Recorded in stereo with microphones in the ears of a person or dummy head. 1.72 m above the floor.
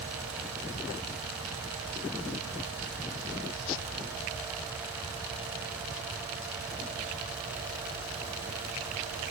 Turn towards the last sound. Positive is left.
No sound to turn to.